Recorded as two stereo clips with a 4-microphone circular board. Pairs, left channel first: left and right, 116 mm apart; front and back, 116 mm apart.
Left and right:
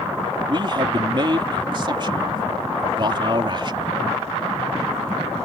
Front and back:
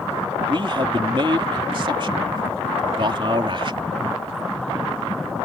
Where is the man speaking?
135° right.